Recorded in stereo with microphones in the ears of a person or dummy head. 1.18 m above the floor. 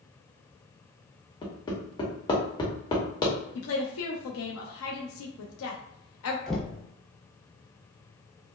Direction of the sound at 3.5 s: 70° left (ahead or behind).